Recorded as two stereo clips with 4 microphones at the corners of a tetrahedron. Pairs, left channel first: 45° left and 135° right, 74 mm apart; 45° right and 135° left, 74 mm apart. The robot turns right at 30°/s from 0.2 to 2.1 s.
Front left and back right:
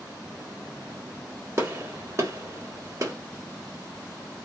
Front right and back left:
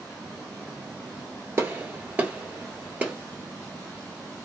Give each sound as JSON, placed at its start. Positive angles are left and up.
{"t": 1.6, "sound": "a gunshot", "azimuth_deg": 180, "distance_m": 1.1}